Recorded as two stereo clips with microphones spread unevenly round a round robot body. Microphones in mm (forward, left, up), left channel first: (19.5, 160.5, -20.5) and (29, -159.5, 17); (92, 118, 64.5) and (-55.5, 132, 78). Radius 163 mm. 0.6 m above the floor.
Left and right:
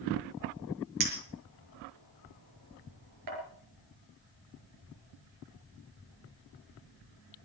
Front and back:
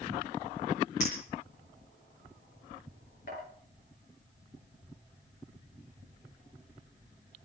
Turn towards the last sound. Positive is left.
turn(degrees=-60)